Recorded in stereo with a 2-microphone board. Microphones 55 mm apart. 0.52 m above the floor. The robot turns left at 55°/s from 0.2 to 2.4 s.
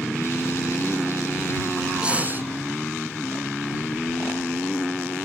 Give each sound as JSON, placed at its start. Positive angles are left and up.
{"t": 2.0, "sound": "breathing", "side_deg": -20}